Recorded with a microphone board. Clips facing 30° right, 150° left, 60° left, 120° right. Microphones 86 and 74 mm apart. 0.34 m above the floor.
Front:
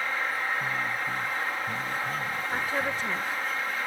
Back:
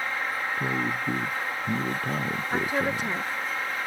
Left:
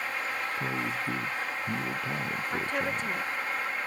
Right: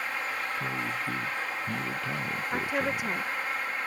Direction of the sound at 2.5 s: 175° right.